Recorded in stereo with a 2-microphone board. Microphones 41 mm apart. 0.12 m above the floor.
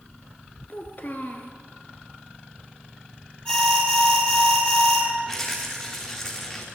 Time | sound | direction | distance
0.7 | a child speaking | 45° left (ahead or behind) | 1.2 m
3.5 | an alarm | 20° left (ahead or behind) | 3 m
5.3 | a rattle | 15° left (ahead or behind) | 3.5 m